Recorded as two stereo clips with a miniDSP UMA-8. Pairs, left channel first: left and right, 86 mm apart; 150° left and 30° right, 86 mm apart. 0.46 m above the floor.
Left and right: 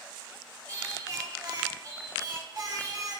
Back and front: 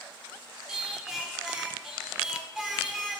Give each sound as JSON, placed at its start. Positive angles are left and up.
{"t": 0.7, "sound": "singing", "azimuth_deg": -110, "distance_m": 0.6}